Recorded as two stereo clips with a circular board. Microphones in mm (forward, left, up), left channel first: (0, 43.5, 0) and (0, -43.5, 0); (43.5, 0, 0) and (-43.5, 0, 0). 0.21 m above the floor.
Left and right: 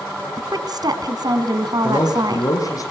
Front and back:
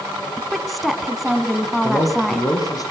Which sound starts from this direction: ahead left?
A man speaking, at 1.8 s.